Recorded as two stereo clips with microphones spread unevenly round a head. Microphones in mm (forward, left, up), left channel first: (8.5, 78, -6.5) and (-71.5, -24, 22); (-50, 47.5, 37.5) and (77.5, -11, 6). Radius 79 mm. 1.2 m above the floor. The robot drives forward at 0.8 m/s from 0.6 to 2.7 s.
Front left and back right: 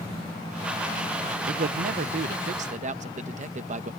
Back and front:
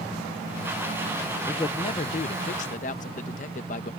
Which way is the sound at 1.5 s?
125° right.